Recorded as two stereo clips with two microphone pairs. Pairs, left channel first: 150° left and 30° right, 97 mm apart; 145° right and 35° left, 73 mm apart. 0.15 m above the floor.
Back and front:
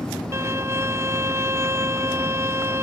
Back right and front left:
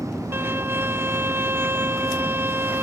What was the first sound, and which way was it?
A violin, straight ahead.